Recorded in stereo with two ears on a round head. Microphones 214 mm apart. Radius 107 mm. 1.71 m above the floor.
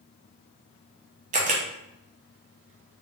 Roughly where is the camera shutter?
Right.